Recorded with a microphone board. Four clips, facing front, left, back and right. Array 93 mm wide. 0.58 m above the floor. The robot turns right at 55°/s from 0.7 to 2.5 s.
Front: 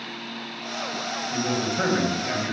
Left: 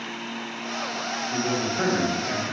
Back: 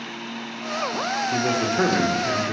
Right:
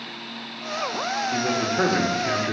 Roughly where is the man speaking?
Behind.